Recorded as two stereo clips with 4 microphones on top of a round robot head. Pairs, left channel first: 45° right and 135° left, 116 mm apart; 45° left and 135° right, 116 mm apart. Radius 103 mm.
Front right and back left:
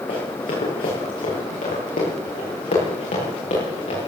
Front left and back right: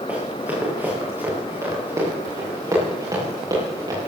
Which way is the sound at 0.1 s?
60° right.